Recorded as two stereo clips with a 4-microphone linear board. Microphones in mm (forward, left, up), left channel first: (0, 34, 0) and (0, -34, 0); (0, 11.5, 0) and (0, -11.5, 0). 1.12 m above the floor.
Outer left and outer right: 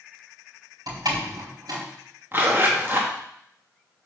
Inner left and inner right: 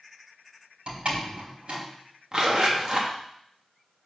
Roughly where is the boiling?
No boiling in this recording.